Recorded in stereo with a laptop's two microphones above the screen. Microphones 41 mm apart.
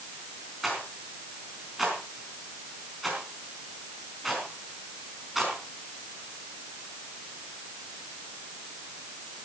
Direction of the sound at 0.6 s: Centre (ahead or behind).